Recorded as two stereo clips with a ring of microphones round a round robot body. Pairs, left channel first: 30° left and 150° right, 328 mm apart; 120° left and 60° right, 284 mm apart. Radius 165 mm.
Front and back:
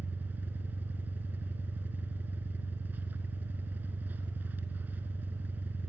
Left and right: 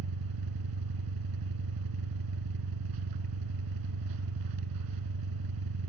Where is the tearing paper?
No tearing paper in this recording.